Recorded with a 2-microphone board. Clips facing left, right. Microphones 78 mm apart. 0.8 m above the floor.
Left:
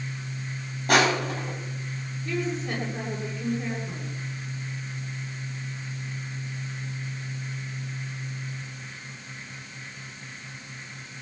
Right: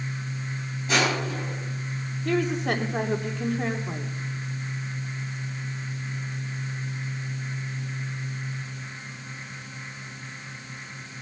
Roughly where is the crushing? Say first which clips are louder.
Left 3 dB; left.